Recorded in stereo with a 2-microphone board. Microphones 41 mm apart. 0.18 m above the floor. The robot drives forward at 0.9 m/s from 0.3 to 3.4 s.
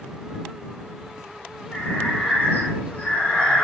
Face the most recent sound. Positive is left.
turn(degrees=35)  # may be behind; listen again after turning